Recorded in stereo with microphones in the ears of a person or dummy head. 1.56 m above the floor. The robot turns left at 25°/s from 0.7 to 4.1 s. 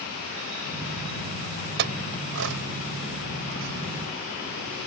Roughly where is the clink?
Right.